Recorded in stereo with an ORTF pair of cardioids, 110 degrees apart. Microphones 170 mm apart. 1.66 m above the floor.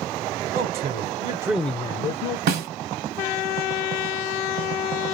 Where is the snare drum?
70° right, 1.1 m.